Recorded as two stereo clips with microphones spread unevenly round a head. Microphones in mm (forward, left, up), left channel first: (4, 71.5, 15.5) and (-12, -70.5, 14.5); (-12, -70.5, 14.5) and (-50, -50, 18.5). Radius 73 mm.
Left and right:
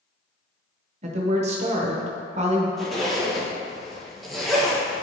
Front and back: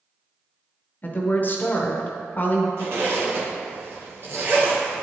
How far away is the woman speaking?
About 0.9 m.